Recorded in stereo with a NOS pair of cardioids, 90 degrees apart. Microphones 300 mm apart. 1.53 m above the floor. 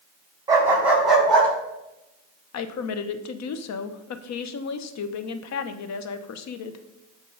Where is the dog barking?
10° right, 4 m; by 1.5 s 5° left, 4.5 m.